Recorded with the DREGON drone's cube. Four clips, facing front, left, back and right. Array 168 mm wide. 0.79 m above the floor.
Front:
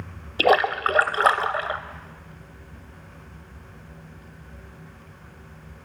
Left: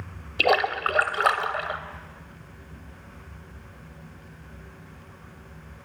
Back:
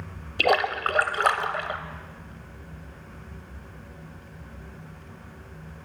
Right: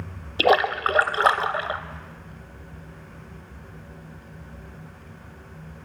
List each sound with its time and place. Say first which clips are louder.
0.4 s a splash: right 3 dB, front 4 dB; 50° right, 0.6 m